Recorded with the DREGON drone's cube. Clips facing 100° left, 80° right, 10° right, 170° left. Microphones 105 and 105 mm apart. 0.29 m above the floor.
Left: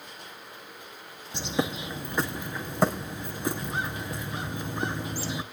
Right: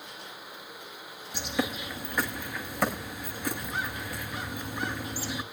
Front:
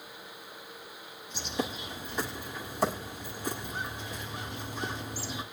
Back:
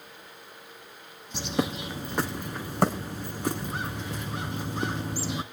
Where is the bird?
165° left, 0.9 m.